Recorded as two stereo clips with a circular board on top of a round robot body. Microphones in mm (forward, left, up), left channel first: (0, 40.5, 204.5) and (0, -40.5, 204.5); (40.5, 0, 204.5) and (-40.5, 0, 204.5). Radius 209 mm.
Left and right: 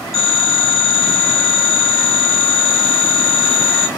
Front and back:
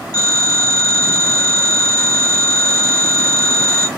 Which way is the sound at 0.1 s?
40° right.